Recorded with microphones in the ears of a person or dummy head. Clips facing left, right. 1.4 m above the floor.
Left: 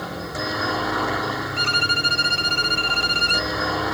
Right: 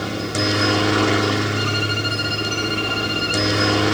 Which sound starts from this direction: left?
A violin, at 1.6 s.